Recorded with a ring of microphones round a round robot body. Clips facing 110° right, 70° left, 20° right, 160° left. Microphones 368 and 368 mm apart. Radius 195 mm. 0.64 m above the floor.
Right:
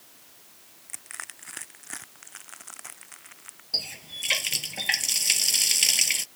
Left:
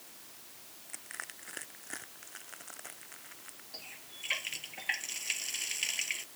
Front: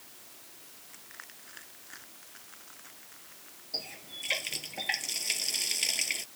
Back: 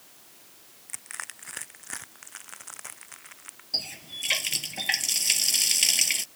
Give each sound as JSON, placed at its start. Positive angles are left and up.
{"t": 0.9, "sound": "crushing", "azimuth_deg": 180}
{"t": 3.7, "sound": "a running tap", "azimuth_deg": -145}